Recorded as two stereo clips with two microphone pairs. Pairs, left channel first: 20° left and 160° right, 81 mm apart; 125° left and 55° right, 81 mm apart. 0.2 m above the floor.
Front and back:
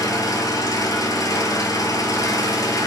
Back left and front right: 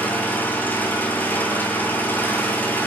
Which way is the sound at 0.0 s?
55° left.